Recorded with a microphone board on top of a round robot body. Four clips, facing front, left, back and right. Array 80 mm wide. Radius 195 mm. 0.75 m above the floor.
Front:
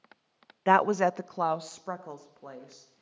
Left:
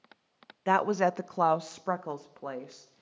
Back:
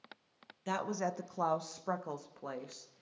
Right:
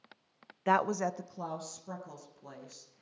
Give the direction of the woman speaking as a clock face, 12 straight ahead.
12 o'clock.